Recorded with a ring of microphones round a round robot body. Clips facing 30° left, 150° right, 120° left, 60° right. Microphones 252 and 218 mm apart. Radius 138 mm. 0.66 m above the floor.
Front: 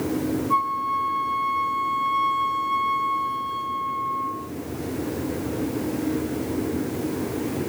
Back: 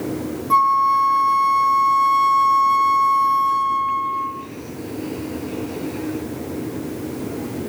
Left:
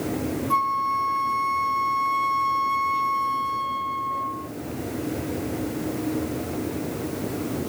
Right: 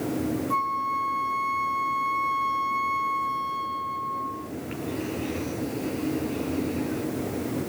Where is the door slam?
I don't hear a door slam.